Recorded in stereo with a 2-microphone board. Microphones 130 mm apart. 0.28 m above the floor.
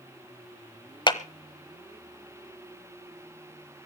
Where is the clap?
35° left (ahead or behind), 1.0 m.